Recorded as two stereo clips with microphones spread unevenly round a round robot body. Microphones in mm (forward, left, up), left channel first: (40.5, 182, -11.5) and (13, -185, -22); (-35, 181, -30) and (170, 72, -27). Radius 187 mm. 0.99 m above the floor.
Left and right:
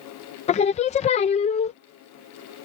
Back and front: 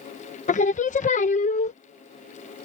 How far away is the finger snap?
No finger snap in this recording.